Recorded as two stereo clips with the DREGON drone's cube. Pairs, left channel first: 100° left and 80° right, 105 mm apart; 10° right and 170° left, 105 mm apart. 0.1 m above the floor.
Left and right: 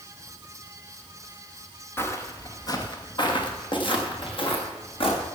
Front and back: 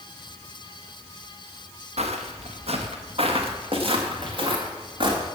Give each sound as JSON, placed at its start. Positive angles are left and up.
{"t": 2.0, "sound": "footsteps", "azimuth_deg": 165, "distance_m": 3.0}